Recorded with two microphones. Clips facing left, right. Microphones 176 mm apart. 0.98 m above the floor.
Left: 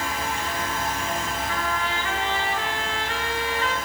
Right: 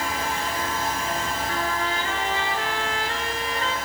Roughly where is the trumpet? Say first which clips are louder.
Right 1 dB; right.